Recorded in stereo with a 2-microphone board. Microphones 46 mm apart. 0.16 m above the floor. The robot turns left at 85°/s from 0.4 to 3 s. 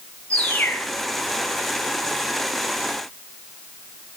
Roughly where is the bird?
Behind left.